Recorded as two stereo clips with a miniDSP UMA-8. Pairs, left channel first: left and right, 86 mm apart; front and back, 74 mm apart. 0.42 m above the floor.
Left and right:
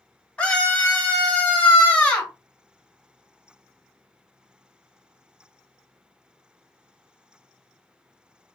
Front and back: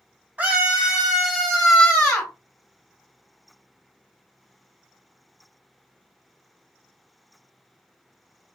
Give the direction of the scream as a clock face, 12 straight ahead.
7 o'clock.